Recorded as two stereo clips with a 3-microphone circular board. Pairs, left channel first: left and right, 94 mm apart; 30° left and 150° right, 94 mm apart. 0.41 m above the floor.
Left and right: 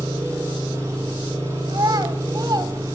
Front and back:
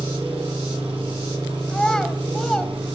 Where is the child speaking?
50° right, 1.3 m.